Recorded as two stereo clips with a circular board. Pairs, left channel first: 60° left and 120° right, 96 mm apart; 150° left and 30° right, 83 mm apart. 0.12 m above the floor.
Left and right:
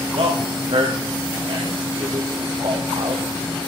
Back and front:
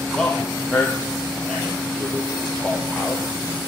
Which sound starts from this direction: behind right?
A man speaking, at 0.1 s.